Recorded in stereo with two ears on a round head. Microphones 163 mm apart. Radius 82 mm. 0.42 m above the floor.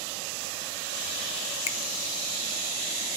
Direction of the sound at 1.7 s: 35° left (ahead or behind).